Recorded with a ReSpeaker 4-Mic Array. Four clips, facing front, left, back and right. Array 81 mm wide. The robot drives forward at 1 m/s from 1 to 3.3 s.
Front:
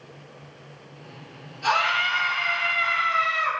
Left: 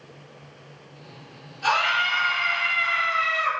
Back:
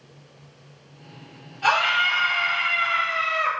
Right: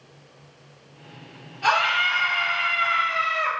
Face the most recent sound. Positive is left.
turn(degrees=-170)